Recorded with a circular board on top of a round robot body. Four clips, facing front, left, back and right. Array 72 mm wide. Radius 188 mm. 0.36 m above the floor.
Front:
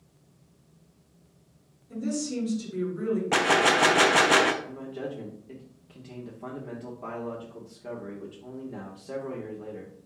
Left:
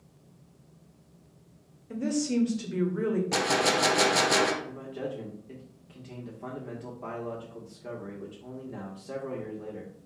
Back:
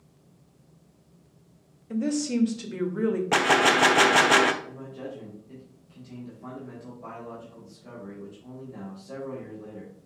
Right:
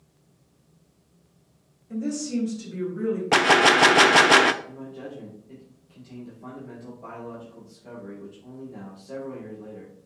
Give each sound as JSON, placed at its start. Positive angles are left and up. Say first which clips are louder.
{"t": 1.9, "sound": "a woman speaking", "louder": "even, back 4 dB", "azimuth_deg": 155, "distance_m": 1.9}
{"t": 3.3, "sound": "a gunshot", "louder": "right 13 dB, back 1 dB", "azimuth_deg": -105, "distance_m": 0.8}
{"t": 4.6, "sound": "a man speaking", "louder": "left 2 dB, front 3 dB", "azimuth_deg": 40, "distance_m": 1.9}